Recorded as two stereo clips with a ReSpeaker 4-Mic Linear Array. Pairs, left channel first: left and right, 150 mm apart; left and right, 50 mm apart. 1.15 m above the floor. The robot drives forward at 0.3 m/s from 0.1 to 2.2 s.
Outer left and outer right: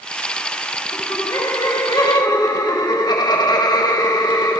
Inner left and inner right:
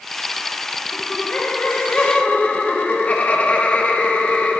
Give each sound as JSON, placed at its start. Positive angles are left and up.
{"t": 0.9, "sound": "laughter", "side_deg": 20, "distance_m": 2.0}